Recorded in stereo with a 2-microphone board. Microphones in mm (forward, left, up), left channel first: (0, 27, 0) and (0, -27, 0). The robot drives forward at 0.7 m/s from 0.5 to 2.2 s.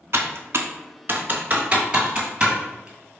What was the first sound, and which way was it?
Typing on a keyboard, 60° right (ahead or behind).